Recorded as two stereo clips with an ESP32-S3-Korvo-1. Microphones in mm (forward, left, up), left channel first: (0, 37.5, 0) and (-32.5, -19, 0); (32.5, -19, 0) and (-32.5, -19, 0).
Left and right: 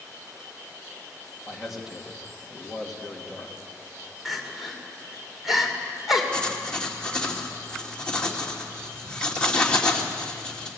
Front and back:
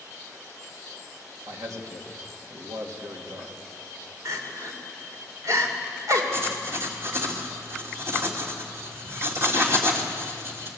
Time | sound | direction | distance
1.5 | a man speaking | 155° left | 3 m
4.2 | crying | 150° left | 3 m
6.3 | writing | 135° left | 2.5 m